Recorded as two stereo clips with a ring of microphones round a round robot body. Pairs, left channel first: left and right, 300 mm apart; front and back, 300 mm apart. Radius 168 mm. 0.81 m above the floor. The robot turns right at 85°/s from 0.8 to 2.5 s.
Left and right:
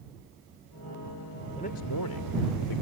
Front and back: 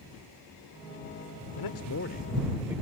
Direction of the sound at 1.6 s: 15° left.